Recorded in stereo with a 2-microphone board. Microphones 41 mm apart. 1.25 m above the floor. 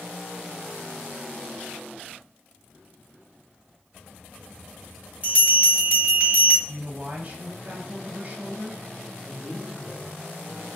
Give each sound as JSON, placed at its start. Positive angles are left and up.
{"t": 5.2, "sound": "a bell", "side_deg": -30, "distance_m": 1.2}
{"t": 6.7, "sound": "a man speaking", "side_deg": -35, "distance_m": 0.9}
{"t": 9.2, "sound": "a man speaking", "side_deg": -15, "distance_m": 1.8}